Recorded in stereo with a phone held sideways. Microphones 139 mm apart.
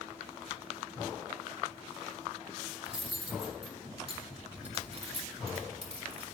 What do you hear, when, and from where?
2.9 s cutlery clinking: 45° right (ahead or behind), 1.6 m